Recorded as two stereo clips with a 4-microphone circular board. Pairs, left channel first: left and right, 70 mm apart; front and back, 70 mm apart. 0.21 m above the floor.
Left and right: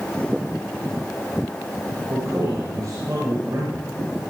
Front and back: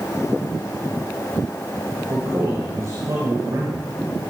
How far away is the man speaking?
About 3.5 m.